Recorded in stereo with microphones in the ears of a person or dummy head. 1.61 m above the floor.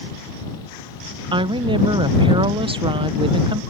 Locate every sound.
1.3 s a woman speaking: 30° right (ahead or behind)